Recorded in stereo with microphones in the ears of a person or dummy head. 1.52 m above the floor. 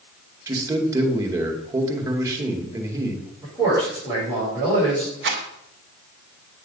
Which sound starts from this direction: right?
A rattle, at 5.2 s.